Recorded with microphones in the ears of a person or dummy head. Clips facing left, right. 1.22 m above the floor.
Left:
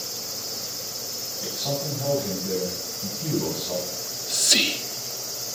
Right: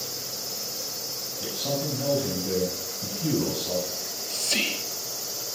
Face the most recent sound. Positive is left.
turn(degrees=30)  # may be behind; listen again after turning